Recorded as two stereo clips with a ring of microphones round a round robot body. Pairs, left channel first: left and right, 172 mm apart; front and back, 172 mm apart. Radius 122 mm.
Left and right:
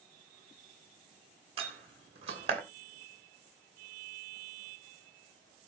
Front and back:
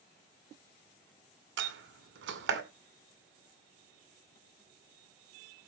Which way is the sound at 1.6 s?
155° right.